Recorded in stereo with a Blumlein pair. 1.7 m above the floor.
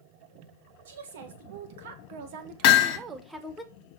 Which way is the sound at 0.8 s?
60° right.